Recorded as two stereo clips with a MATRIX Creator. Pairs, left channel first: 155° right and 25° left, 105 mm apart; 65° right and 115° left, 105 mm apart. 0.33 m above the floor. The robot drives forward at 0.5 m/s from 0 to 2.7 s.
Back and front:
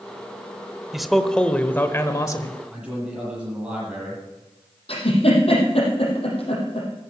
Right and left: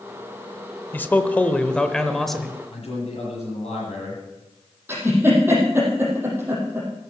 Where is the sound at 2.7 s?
55° right, 9.5 m.